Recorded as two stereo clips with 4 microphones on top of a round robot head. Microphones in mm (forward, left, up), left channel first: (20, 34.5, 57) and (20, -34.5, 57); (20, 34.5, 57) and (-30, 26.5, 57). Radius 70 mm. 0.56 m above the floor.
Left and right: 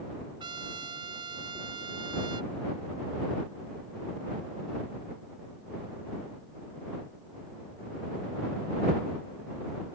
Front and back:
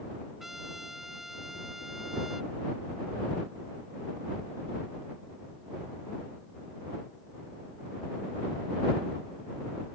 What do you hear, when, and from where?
0.4 s a trumpet: 85° right